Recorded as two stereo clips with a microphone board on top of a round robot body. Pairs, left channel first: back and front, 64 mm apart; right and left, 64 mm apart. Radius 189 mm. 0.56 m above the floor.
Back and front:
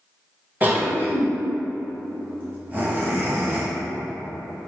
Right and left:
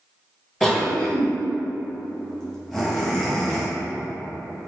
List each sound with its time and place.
0.6 s a cough: 10° right, 1.2 m